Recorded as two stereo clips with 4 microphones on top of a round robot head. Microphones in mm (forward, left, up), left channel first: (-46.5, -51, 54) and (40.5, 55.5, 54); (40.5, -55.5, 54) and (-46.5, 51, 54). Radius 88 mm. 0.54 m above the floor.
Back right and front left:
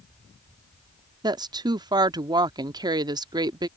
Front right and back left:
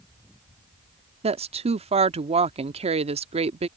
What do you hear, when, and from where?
1.2 s a woman speaking: 105° left